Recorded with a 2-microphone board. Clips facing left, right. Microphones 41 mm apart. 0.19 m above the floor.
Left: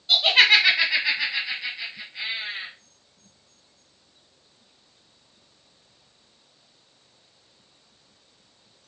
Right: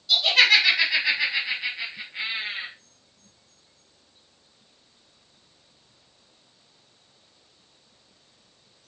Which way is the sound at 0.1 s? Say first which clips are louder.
Left 1 dB; 30° left (ahead or behind).